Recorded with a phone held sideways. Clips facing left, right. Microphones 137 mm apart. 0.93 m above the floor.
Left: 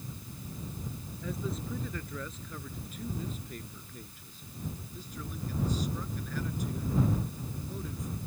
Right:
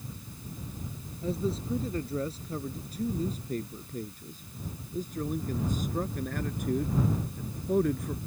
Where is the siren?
I don't hear a siren.